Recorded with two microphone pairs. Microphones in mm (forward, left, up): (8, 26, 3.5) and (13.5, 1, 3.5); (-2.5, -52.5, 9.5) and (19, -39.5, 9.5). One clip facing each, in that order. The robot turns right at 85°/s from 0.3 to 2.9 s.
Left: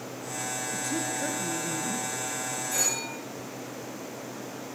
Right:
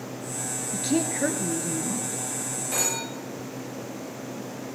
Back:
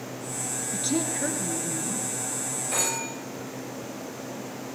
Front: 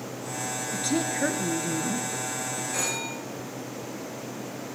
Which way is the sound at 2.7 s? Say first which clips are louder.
Right 2 dB, back 3 dB; 130° right.